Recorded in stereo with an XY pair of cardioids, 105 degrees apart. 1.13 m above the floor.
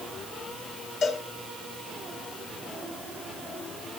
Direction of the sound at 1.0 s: 65° left.